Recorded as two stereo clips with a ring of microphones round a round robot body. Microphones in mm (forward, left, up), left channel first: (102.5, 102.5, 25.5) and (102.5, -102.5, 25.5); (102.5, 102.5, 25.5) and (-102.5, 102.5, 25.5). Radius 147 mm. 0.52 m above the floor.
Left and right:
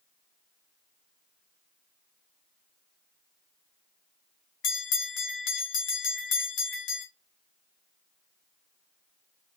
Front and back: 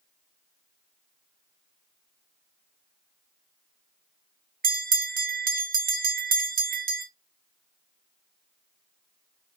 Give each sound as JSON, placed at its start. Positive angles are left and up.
{"t": 4.6, "sound": "a bell", "azimuth_deg": 130, "distance_m": 0.8}